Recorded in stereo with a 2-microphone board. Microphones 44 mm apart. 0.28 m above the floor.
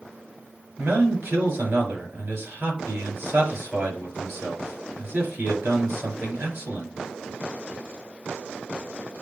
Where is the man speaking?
60° right (ahead or behind), 4 m.